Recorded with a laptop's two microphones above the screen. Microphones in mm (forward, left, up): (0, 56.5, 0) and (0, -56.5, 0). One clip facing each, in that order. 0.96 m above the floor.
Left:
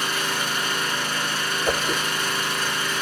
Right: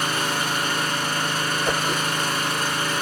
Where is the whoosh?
5° left (ahead or behind), 0.6 m.